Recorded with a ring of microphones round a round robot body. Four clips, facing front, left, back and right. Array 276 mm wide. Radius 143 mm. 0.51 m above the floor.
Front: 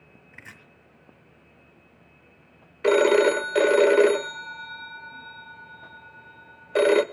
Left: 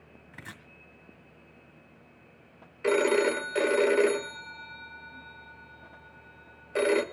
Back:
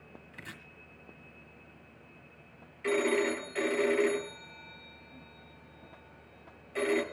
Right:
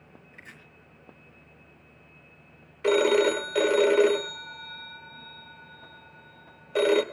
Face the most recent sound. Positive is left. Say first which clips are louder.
# right 3 dB, front 11 dB
turn(degrees=-5)